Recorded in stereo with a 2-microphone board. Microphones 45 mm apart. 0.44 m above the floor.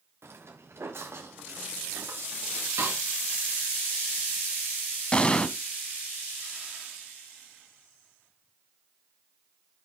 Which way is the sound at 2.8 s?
85° right.